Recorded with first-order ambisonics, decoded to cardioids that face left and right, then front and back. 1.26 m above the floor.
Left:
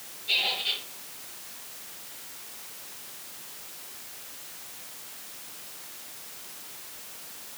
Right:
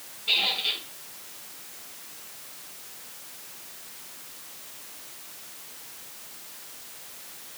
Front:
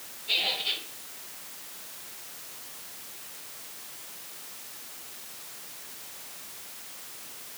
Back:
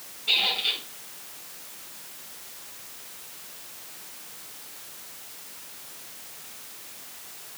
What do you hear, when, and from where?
0.3 s a squeak: 135° right, 5 m